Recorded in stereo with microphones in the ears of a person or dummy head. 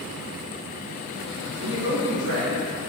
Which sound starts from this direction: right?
A man speaking, at 1.6 s.